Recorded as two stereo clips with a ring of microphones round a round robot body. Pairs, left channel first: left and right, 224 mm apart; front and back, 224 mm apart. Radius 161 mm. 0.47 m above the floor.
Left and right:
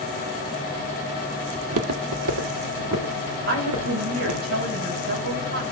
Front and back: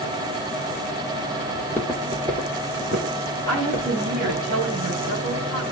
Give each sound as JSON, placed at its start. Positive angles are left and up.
{"t": 1.6, "sound": "footsteps", "azimuth_deg": -70, "distance_m": 0.8}
{"t": 3.5, "sound": "a woman speaking", "azimuth_deg": -125, "distance_m": 3.5}